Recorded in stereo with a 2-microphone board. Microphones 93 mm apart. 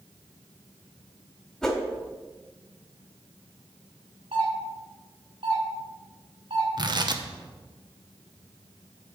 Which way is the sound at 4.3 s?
80° right.